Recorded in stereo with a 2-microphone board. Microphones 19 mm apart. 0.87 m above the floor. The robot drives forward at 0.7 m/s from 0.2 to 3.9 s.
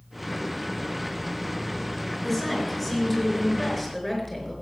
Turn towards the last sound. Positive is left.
turn(degrees=15)  # may be behind; listen again after turning